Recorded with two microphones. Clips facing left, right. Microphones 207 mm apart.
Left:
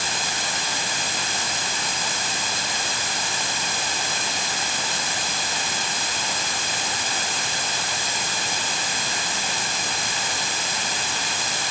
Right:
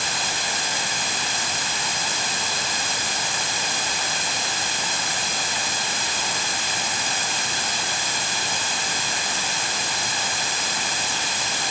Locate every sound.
Only background noise.